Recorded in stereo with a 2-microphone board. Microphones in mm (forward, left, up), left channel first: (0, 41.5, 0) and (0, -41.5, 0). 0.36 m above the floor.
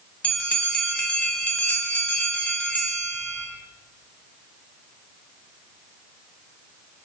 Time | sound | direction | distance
0.2 | a bell | 15° left (ahead or behind) | 0.7 m